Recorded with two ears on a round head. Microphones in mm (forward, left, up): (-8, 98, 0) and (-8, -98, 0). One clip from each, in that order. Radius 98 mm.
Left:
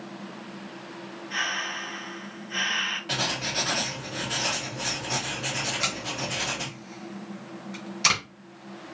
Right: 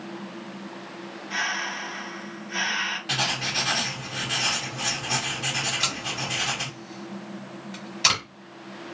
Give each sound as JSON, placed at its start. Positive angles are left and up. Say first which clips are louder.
{"t": 1.3, "sound": "breathing", "louder": "right 1 dB", "side_deg": -20, "distance_m": 3.0}
{"t": 3.1, "sound": "writing", "louder": "right 2 dB", "side_deg": -25, "distance_m": 1.6}
{"t": 5.7, "sound": "tape being pulled", "louder": "right 2 dB", "side_deg": -10, "distance_m": 2.0}